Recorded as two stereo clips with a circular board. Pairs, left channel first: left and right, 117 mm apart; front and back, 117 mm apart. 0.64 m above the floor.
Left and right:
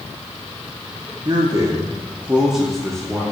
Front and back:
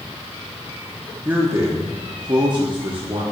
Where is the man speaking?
115° right, 1.0 m; by 3.2 s 160° left, 1.1 m.